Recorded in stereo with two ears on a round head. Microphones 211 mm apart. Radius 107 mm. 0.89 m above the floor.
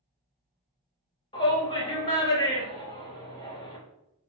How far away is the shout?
About 1.6 m.